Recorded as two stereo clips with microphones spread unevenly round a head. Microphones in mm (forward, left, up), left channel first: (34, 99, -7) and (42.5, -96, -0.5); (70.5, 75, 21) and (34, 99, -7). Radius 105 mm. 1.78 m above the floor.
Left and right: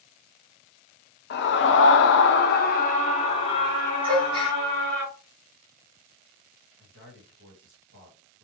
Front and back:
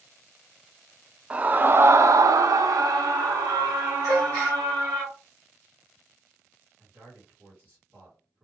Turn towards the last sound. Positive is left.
turn(degrees=-125)